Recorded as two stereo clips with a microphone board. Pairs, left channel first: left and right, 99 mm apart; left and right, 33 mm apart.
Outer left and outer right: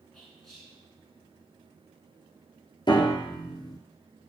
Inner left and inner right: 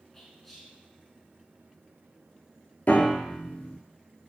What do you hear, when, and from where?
0.1 s whispering: 5° left (ahead or behind), 1.1 m
2.9 s a piano: 50° left (ahead or behind), 0.7 m